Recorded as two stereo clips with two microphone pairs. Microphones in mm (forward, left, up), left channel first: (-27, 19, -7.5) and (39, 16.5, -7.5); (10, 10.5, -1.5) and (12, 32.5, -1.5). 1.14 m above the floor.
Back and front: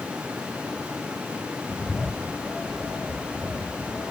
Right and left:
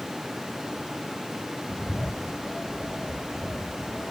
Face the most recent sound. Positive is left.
turn(degrees=-110)